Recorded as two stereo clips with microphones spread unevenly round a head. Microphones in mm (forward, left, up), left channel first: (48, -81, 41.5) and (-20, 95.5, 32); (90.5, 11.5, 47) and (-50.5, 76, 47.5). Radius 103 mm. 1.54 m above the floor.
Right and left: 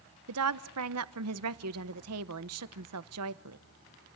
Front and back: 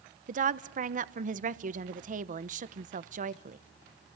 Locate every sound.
0.3 s a woman speaking: 120° left, 1.0 m